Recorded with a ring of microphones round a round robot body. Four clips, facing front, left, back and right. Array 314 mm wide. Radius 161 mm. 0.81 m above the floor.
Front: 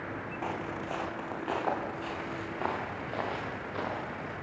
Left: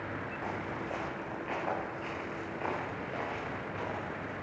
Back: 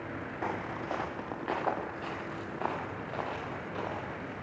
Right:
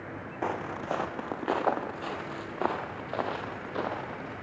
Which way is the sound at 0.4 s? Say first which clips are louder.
Right 8 dB, back 1 dB; 100° right.